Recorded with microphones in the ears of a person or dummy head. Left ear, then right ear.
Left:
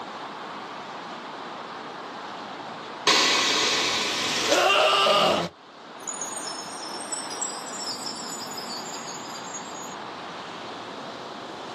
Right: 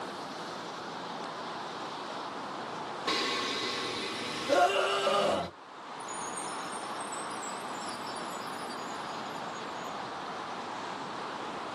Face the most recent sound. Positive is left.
turn(degrees=75)  # may be behind; listen again after turning